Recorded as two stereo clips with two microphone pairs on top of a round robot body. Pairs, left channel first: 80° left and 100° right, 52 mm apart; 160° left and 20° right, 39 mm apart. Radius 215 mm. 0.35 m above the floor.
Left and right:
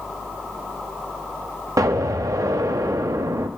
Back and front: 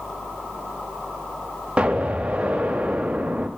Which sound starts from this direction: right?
An explosion, at 1.8 s.